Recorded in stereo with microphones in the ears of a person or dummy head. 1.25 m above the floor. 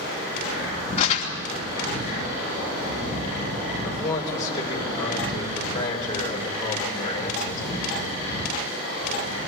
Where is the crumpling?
40° left (ahead or behind), 3 m.